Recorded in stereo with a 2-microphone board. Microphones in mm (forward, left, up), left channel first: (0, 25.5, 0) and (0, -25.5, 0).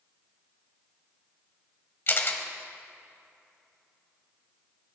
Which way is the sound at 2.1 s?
45° left (ahead or behind).